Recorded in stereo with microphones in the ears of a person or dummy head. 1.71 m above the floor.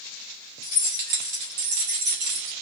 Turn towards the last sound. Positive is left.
turn(degrees=-75)  # may be behind; listen again after turning